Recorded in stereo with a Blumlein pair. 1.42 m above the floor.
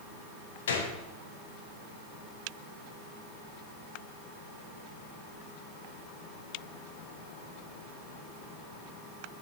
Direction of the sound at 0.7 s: 60° left.